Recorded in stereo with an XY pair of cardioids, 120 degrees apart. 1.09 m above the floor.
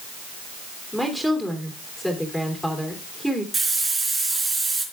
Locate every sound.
0.9 s a woman speaking: straight ahead, 3 m
3.5 s a hiss: 25° right, 3.5 m